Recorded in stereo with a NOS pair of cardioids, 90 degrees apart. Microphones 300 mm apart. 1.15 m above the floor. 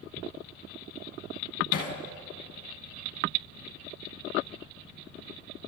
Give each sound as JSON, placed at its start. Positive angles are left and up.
{"t": 1.7, "sound": "hammering", "azimuth_deg": 50, "distance_m": 5.0}